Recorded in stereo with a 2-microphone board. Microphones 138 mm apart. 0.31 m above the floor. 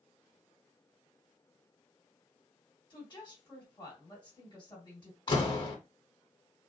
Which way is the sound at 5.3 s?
35° left (ahead or behind).